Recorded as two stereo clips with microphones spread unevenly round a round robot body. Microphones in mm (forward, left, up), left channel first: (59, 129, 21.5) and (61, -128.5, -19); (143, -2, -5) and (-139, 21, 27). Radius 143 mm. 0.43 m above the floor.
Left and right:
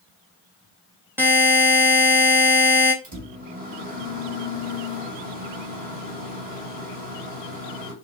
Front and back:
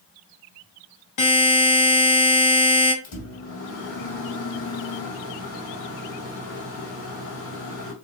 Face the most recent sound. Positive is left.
turn(degrees=-40)